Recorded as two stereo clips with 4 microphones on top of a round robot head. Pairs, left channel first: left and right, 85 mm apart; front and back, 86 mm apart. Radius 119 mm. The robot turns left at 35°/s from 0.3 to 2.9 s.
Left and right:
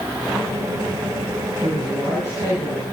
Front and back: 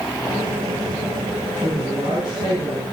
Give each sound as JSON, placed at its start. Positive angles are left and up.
{"t": 1.6, "sound": "a man speaking", "azimuth_deg": -120, "distance_m": 5.0}